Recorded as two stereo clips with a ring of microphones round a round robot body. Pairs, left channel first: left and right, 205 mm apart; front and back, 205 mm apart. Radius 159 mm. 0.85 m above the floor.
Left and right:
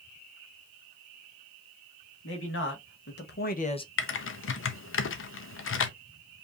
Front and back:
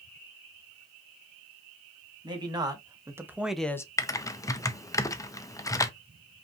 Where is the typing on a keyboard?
75° left, 0.7 m.